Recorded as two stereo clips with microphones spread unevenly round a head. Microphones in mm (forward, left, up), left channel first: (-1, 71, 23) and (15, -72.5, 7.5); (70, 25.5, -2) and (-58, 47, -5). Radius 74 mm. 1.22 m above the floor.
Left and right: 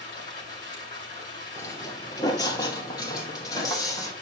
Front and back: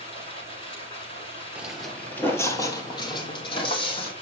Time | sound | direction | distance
0.0 | running water | 40° left | 7 m
1.6 | footsteps | 105° left | 1.2 m